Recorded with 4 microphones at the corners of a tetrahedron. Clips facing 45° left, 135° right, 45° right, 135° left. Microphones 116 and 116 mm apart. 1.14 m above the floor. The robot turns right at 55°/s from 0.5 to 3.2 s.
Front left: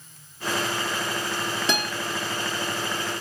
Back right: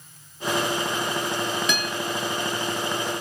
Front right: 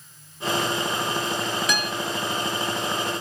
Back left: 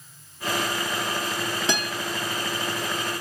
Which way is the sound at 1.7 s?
85° left.